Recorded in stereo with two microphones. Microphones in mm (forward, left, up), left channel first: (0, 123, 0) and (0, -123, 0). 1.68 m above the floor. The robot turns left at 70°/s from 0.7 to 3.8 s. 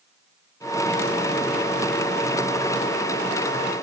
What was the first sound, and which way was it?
Only background noise.